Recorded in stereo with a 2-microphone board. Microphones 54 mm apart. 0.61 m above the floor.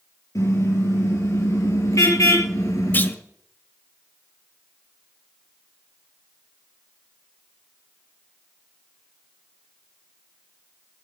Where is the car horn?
85° left, 6 m; by 3.1 s 80° left, 4.5 m.